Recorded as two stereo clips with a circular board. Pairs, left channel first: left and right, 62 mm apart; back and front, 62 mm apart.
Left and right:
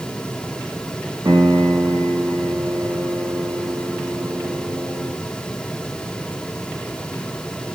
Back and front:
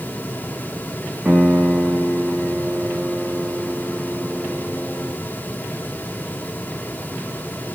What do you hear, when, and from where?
1.2 s a piano: 75° right, 3 m